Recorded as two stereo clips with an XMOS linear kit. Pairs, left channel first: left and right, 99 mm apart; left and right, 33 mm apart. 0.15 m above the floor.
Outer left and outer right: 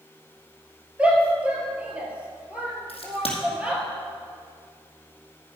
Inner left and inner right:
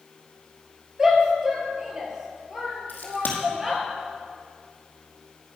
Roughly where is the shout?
Centre.